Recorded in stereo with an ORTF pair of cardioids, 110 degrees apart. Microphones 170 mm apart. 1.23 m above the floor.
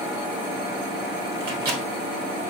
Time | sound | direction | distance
1.4 | a microwave | 65° right | 1.4 m